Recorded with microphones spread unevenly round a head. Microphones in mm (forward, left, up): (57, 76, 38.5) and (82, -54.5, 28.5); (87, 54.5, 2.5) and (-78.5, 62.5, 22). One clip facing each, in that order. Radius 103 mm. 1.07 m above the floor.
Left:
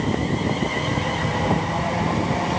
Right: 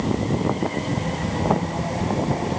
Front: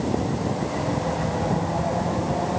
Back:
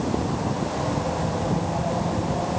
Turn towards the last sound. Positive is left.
No sound to turn to.